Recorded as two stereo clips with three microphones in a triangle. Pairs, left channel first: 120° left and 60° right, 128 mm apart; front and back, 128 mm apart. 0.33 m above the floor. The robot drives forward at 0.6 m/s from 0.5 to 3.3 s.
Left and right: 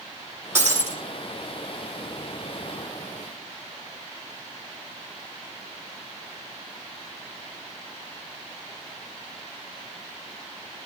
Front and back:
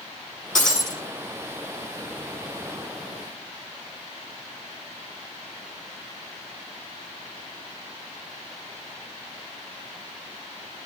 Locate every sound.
0.6 s breaking glass: 10° left, 7.5 m